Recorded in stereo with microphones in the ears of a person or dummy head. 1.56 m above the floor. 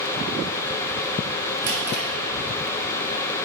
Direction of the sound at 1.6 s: 55° right (ahead or behind).